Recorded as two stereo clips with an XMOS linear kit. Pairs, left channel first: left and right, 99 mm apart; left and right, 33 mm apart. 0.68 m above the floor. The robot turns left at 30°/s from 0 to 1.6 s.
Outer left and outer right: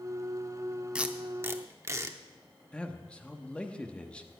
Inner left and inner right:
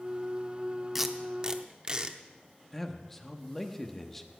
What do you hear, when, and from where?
0.9 s tape being pulled: 10° right (ahead or behind), 0.7 m; by 2.2 s 30° right (ahead or behind), 0.7 m
2.7 s a man speaking: 10° left (ahead or behind), 1.0 m